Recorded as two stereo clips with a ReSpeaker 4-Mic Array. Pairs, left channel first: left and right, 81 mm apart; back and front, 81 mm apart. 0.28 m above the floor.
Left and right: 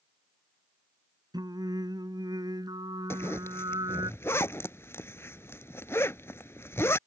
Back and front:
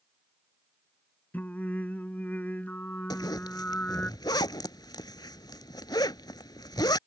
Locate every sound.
1.3 s singing: 110° right
3.1 s a zipper: 145° left